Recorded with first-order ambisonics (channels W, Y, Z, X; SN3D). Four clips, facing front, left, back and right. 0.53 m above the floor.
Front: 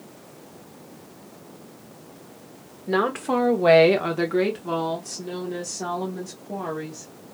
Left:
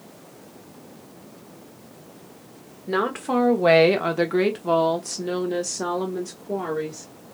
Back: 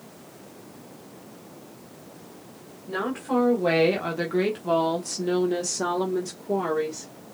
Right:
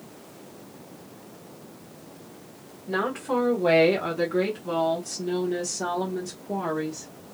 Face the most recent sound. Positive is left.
turn(degrees=160)